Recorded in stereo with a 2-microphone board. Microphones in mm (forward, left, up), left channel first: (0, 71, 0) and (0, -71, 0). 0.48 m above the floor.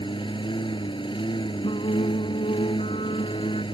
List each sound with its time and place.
0.0 s a lawn mower: 35° left (ahead or behind)
1.6 s singing: 45° left (ahead or behind)